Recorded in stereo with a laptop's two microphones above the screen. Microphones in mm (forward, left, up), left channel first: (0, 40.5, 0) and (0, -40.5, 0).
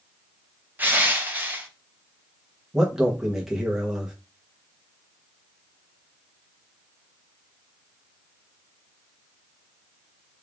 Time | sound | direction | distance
0.8 | crushing | 20° right (ahead or behind) | 0.7 m
2.7 | a man speaking | 5° right (ahead or behind) | 0.8 m